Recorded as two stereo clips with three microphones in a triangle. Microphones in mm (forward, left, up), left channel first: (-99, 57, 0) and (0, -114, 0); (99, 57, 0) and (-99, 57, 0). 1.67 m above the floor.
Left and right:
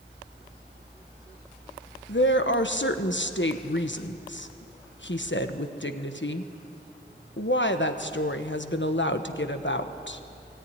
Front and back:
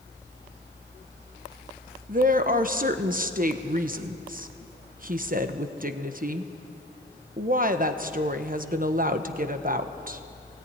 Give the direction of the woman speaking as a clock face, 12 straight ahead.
7 o'clock.